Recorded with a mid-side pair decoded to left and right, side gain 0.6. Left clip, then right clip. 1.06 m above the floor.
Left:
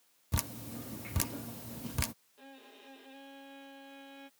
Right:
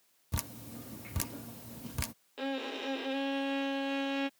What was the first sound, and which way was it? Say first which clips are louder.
Dripping: left 2 dB; 10° left.